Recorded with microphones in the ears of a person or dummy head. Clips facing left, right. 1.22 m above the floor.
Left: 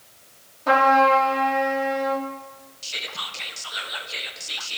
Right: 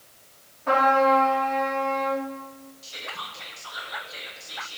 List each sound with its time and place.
0.7 s a trumpet: 65° left (ahead or behind), 1.7 m
2.8 s whispering: 40° left (ahead or behind), 0.6 m